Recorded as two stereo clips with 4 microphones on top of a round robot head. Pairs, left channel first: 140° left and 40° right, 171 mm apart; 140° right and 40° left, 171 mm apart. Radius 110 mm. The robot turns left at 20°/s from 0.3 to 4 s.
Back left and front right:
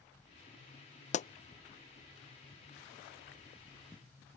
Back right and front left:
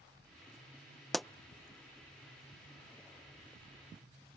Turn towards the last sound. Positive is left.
turn(degrees=75)